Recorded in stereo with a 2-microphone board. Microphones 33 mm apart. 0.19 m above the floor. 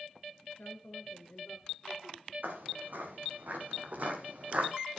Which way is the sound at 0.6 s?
65° left (ahead or behind).